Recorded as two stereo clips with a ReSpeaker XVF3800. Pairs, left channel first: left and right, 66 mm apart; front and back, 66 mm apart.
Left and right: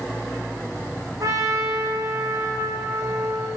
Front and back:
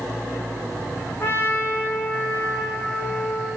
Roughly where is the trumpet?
Ahead right.